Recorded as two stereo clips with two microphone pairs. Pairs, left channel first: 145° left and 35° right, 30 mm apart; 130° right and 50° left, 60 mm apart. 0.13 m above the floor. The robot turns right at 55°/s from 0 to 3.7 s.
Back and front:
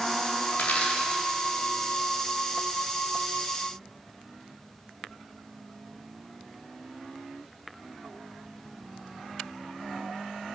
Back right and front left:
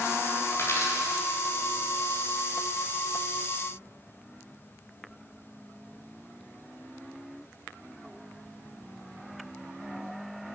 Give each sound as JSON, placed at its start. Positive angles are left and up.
{"t": 0.5, "sound": "a dropped coin", "azimuth_deg": 180, "distance_m": 5.0}